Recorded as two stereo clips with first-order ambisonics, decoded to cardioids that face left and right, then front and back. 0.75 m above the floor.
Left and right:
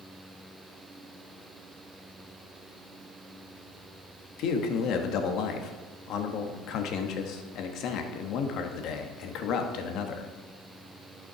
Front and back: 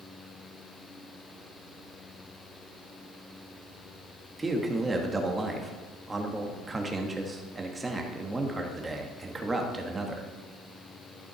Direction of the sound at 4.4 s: 105° left.